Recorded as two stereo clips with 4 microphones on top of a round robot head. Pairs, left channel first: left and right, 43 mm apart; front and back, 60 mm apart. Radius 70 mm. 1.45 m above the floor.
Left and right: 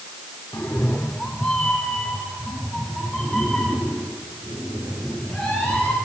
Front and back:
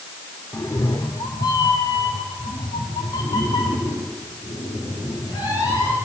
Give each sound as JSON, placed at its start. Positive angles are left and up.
{"t": 0.5, "sound": "a cat meowing", "azimuth_deg": 45, "distance_m": 1.2}